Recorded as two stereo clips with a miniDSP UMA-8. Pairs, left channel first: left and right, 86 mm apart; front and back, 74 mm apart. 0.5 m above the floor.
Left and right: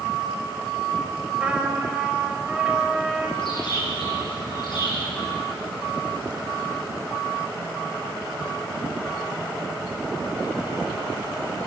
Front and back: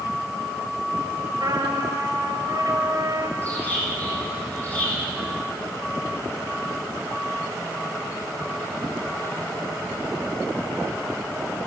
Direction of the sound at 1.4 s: 165° right.